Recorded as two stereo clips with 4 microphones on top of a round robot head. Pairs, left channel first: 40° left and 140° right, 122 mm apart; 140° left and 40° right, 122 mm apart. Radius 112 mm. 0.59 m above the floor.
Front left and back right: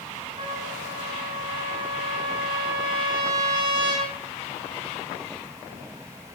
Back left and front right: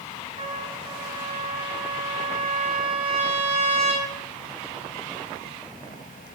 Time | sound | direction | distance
0.4 | a trumpet | 80° right | 2 m